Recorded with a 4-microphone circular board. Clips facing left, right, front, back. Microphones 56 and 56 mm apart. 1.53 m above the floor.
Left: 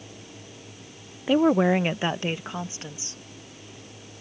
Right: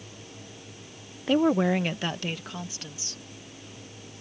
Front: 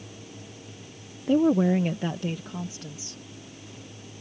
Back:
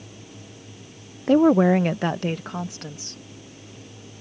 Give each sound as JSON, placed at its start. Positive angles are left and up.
{"t": 1.3, "sound": "a woman speaking", "azimuth_deg": 175}